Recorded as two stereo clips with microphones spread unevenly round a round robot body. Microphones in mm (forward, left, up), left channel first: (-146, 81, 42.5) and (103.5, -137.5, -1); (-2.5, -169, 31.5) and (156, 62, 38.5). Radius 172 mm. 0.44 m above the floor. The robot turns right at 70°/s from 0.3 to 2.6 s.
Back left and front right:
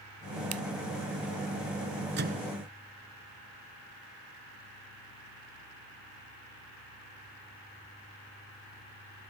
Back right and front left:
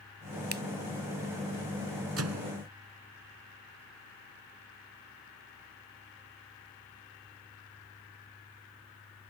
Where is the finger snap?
Straight ahead; by 0.6 s 10° left.